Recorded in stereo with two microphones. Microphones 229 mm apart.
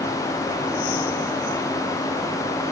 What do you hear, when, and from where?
Only background noise.